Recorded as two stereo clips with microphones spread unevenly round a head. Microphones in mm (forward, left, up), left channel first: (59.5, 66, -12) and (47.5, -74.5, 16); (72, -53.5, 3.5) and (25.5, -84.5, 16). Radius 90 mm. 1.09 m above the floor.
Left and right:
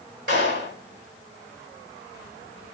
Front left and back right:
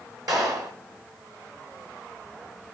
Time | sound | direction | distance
0.3 | a clap | 135° right | 5 m